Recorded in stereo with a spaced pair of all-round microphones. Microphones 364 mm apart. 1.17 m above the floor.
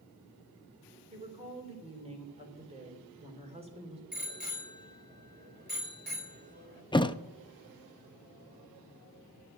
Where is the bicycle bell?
25° right (ahead or behind), 3.5 m.